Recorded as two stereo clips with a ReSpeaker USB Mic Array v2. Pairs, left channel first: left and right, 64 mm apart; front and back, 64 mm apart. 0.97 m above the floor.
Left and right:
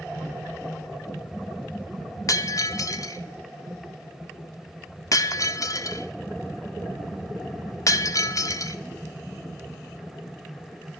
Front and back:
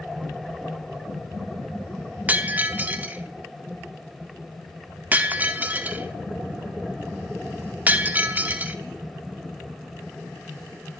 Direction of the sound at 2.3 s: 115° left.